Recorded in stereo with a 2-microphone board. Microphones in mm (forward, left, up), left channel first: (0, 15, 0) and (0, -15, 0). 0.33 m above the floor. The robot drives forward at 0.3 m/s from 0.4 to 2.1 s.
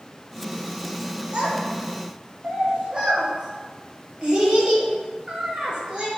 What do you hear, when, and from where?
1.3 s a child speaking: 35° right (ahead or behind), 0.8 m; by 6.1 s 30° right (ahead or behind), 0.9 m